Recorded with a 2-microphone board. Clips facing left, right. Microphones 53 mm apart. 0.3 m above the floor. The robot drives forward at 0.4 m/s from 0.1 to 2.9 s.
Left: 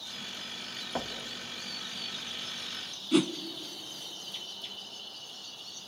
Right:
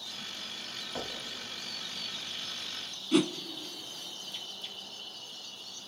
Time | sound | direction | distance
0.9 | knocking | 30° left (ahead or behind) | 1.3 m
3.1 | a whoosh | centre (ahead or behind) | 0.5 m